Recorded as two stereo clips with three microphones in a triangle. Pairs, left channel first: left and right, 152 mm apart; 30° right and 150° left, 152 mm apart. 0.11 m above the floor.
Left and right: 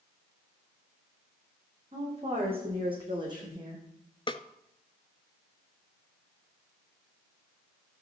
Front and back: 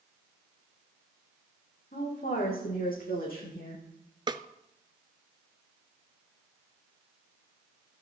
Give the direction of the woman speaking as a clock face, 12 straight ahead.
1 o'clock.